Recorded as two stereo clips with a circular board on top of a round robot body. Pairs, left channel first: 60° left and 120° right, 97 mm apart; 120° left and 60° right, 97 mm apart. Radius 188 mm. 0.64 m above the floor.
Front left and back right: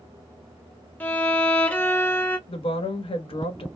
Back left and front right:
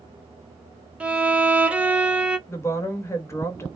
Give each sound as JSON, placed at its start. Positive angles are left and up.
{"t": 1.0, "sound": "a violin", "azimuth_deg": 5, "distance_m": 1.0}
{"t": 2.5, "sound": "a woman speaking", "azimuth_deg": 60, "distance_m": 1.0}